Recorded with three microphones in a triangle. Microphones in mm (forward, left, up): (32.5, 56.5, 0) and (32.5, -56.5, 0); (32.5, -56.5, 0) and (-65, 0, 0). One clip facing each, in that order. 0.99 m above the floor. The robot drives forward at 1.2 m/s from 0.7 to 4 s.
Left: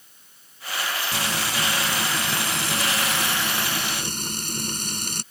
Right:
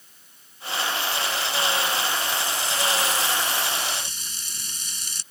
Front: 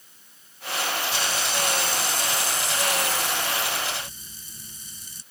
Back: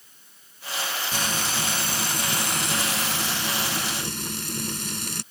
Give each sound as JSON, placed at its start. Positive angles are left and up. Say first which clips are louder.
{"t": 1.1, "sound": "frying", "louder": "even, front 1 dB", "azimuth_deg": 105}